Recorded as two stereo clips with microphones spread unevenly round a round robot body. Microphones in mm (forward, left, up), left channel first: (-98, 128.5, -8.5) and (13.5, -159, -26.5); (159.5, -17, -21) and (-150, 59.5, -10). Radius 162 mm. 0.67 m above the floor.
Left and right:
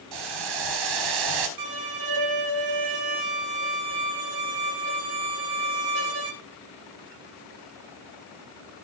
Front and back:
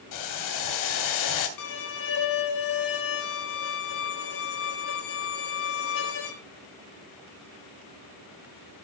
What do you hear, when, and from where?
0.1 s boiling: 50° right, 2.5 m
1.6 s a violin: 45° right, 2.5 m